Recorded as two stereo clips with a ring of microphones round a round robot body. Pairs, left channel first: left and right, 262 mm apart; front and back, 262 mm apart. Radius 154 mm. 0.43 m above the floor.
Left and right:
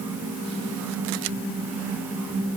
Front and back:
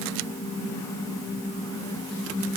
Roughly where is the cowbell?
No cowbell in this recording.